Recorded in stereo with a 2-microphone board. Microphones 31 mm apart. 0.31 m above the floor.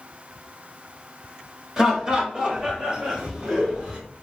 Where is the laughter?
20° right (ahead or behind), 1.1 m; by 4.0 s 25° right (ahead or behind), 1.7 m.